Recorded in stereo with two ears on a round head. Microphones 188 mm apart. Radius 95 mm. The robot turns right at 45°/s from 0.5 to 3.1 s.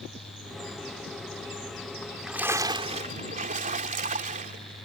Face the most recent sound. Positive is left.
turn(degrees=-140)